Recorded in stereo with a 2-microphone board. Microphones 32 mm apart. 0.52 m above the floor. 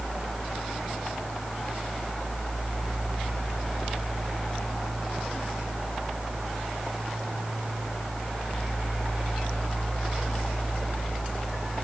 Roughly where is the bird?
I don't hear a bird.